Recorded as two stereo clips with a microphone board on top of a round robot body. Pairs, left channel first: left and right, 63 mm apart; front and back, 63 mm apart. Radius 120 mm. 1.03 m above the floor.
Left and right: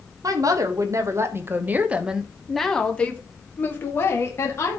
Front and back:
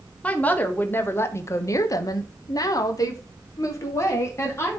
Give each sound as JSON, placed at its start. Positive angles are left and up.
{"t": 0.2, "sound": "a woman speaking", "azimuth_deg": -65, "distance_m": 1.7}